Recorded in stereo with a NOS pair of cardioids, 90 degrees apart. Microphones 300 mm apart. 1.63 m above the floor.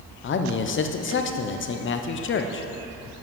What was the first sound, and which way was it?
A man speaking, 45° left.